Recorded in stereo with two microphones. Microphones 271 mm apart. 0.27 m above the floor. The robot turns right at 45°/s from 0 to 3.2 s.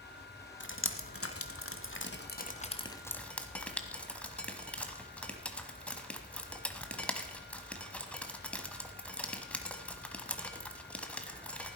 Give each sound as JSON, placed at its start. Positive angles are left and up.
{"t": 0.6, "sound": "dripping", "side_deg": 45, "distance_m": 1.2}